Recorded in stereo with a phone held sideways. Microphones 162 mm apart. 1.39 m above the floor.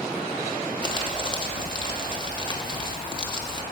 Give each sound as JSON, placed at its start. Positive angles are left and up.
{"t": 0.8, "sound": "crumpling", "side_deg": 30, "distance_m": 1.3}